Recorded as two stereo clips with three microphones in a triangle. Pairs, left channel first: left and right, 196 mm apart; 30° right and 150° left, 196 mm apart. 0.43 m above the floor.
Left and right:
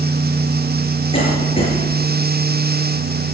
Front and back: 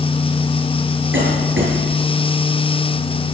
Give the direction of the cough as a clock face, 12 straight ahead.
7 o'clock.